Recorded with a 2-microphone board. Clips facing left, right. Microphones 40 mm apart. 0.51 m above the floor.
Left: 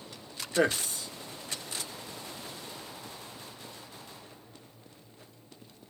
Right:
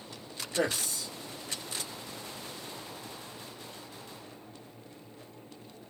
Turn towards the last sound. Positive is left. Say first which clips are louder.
# left 4 dB
turn(degrees=35)  # may be behind; listen again after turning